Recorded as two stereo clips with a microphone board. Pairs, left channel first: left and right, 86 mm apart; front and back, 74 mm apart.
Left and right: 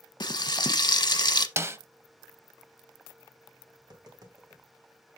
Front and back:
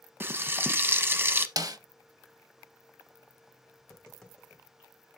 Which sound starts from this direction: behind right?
A snare drum, at 1.6 s.